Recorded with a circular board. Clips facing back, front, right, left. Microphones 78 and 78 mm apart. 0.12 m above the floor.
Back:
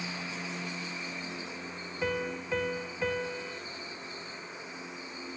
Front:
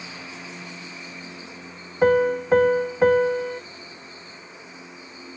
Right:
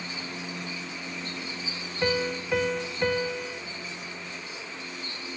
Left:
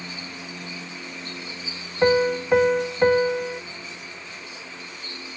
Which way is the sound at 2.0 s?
35° left.